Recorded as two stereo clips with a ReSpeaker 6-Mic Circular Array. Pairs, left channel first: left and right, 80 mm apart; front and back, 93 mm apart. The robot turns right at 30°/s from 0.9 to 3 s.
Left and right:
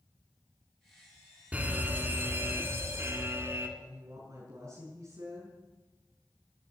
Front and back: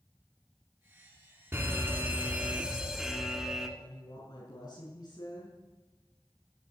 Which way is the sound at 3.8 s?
35° right.